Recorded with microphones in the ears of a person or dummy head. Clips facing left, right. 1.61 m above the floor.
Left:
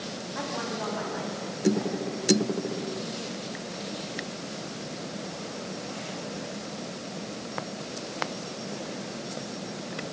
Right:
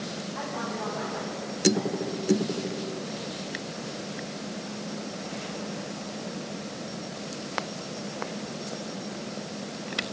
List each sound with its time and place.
0.3 s a woman speaking: 45° left (ahead or behind), 8.5 m